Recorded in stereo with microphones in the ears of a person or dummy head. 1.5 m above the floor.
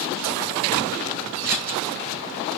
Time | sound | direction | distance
1.4 | scissors | 50° right (ahead or behind) | 3.5 m